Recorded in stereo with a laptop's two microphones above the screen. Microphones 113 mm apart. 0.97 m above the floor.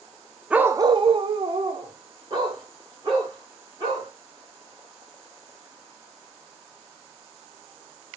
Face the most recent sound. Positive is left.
turn(degrees=-40)  # may be behind; listen again after turning